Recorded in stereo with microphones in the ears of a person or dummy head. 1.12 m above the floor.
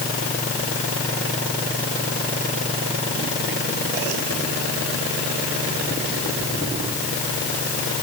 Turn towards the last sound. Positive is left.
No sound to turn to.